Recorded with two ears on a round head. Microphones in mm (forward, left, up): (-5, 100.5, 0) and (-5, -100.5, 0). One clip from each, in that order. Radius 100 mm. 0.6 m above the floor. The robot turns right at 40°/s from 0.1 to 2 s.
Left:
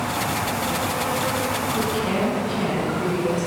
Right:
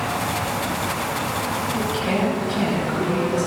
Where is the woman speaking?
15° right (ahead or behind), 4 m; by 3.5 s 5° right (ahead or behind), 4 m.